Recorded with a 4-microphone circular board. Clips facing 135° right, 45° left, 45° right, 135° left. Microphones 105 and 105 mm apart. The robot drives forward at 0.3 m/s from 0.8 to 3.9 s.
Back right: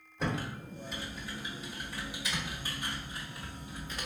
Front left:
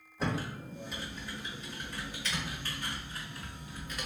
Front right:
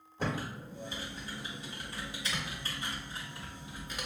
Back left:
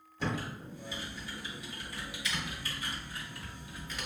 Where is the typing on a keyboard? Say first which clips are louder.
Even, even; 40° right, 1.4 m; by 4.1 s 105° right, 1.1 m.